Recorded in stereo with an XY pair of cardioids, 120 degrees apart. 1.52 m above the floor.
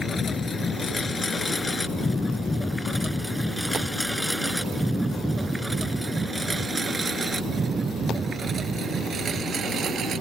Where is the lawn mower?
25° left; by 10.2 s 45° right.